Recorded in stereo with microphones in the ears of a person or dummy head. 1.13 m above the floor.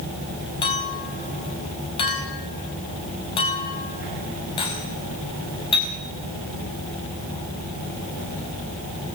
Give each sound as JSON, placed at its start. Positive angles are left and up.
{"t": 0.6, "sound": "a clink", "side_deg": 25, "distance_m": 5.0}